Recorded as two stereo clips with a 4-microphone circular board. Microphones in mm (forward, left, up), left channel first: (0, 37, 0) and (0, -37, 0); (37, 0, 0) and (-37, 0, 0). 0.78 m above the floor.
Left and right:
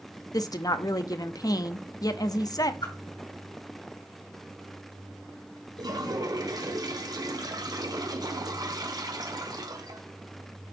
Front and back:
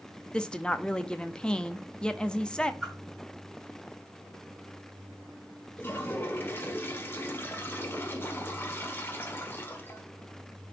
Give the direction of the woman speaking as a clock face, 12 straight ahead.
10 o'clock.